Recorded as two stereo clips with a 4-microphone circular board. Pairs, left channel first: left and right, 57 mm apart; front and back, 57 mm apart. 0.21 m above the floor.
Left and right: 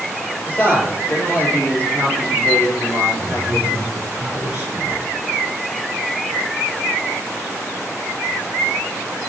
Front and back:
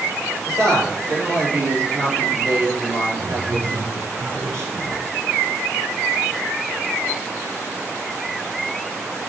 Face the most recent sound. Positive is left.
turn(degrees=-150)